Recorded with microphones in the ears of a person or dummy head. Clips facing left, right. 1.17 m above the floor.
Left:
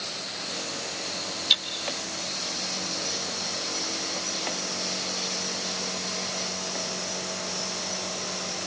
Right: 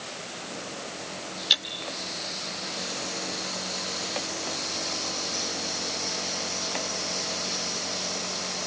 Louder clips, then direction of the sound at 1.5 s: Right 1 dB; 10° right (ahead or behind).